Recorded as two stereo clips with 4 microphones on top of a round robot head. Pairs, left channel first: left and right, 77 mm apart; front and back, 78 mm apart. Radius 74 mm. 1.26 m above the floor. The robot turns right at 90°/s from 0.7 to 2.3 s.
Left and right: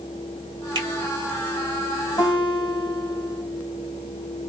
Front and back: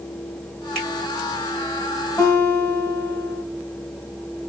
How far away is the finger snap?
About 1.4 m.